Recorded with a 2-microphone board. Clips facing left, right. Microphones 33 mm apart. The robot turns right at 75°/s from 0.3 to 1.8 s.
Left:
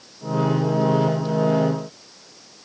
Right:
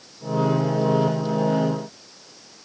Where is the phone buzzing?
No phone buzzing in this recording.